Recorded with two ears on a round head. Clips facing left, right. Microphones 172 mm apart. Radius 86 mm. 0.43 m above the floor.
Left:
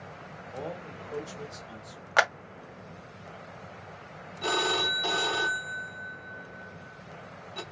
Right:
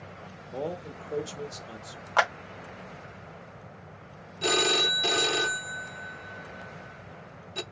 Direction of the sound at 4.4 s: 25° right (ahead or behind).